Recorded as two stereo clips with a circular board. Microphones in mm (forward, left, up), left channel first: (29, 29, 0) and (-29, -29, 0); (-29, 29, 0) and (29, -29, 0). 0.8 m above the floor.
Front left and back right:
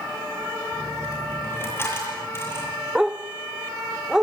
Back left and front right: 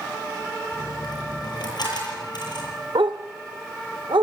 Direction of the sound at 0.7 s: 105° left.